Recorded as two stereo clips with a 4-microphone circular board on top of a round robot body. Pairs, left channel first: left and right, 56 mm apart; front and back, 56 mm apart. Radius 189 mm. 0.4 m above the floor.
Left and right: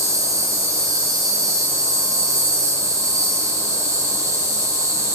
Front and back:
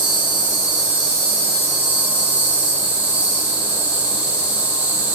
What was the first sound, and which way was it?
An insect, 110° right.